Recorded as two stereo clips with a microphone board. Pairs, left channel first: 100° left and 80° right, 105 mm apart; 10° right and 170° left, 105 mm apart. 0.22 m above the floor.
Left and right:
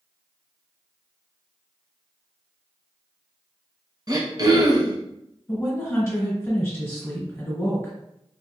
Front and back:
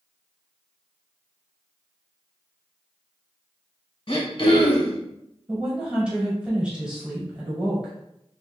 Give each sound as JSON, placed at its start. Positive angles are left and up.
{"t": 4.1, "sound": "throat clearing", "azimuth_deg": -40, "distance_m": 0.9}
{"t": 5.5, "sound": "a woman speaking", "azimuth_deg": 105, "distance_m": 1.3}